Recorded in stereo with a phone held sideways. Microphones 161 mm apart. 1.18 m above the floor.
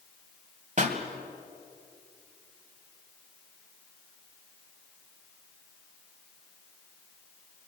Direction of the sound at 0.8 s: 50° right (ahead or behind).